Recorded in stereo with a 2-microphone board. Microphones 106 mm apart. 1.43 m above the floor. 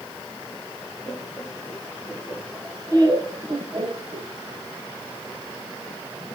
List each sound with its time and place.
1.1 s laughter: centre (ahead or behind), 1.6 m; by 4.3 s 55° right (ahead or behind), 2.0 m